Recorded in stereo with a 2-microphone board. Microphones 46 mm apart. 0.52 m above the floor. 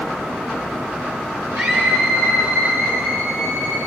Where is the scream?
65° right (ahead or behind), 4.5 m; by 3.8 s 85° right, 7 m.